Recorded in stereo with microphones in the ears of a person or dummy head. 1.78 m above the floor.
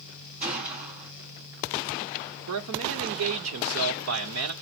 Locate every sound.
0.4 s a gunshot: 35° right (ahead or behind), 1.3 m
2.5 s a man speaking: 75° right (ahead or behind), 1.1 m